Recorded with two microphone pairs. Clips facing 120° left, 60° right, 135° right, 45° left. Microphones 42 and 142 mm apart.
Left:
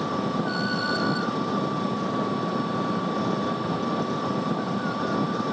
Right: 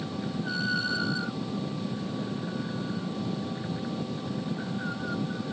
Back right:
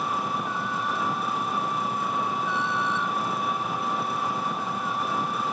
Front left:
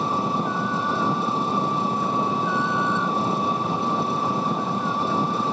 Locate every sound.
0.0 s an engine running: 105° left